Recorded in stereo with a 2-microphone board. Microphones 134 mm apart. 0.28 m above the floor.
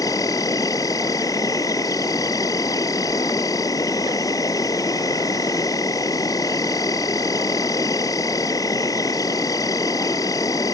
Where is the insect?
25° left (ahead or behind).